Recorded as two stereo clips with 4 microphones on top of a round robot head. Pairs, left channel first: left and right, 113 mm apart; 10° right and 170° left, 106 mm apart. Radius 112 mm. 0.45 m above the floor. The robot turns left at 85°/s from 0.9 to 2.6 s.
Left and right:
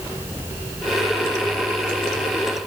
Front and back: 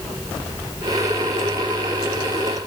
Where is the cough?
I don't hear a cough.